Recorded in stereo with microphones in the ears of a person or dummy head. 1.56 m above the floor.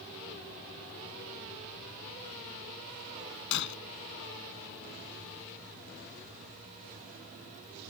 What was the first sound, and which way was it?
Breaking glass, 70° left (ahead or behind).